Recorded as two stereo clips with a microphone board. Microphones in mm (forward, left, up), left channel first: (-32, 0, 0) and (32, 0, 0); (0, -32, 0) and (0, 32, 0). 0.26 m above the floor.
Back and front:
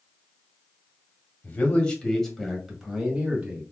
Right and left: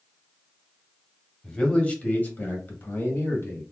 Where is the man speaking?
155° right, 1.1 m; by 3.6 s 65° right, 1.4 m.